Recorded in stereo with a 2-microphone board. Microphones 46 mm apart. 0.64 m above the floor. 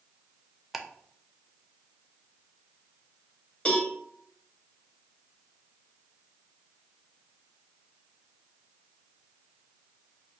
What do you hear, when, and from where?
0.7 s ticking: 5° right (ahead or behind), 0.5 m
3.6 s a cowbell: 25° left (ahead or behind), 1.7 m